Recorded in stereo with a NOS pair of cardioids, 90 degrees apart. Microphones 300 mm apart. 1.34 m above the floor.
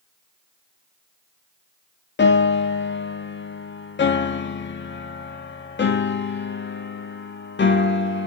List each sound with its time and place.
2.2 s a piano: 35° left, 1.7 m